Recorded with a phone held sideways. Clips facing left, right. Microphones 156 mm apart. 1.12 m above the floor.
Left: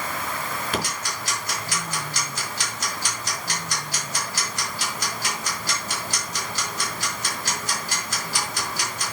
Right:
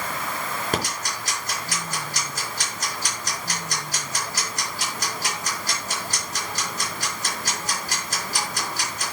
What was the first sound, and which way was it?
Ticking, 45° right (ahead or behind).